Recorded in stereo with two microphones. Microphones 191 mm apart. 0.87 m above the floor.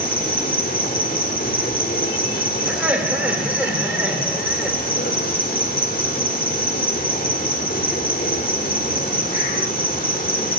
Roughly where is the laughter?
Centre.